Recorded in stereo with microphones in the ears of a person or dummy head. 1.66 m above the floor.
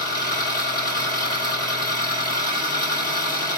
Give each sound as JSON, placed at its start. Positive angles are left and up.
{"t": 0.0, "sound": "an engine running", "side_deg": 55, "distance_m": 3.5}